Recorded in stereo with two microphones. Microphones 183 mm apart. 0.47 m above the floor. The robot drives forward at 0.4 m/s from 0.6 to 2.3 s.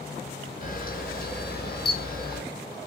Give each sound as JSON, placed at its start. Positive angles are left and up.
{"t": 0.6, "sound": "a camera shutter", "side_deg": 50, "distance_m": 0.9}